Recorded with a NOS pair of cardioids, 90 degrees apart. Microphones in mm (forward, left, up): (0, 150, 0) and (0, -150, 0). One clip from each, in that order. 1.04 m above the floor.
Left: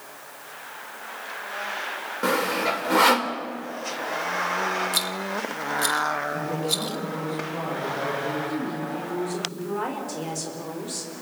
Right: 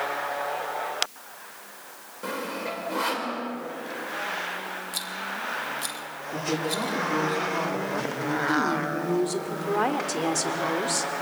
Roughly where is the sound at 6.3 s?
Ahead right.